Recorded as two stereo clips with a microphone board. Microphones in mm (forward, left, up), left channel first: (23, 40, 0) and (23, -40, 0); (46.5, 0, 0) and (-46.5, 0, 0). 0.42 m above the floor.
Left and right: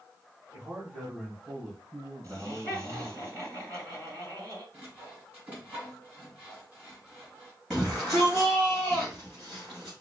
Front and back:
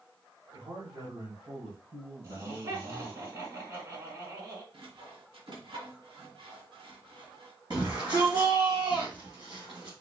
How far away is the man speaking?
About 2 m.